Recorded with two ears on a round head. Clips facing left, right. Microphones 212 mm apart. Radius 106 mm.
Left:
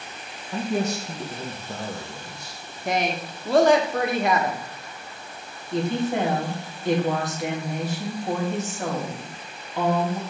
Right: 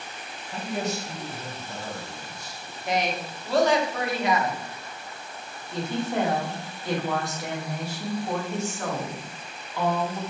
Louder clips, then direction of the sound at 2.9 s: Left 2 dB; 40° left (ahead or behind).